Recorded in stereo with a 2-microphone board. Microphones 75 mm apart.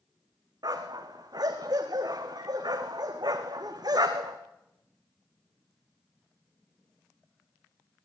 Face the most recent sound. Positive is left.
turn(degrees=-65)  # may be behind; listen again after turning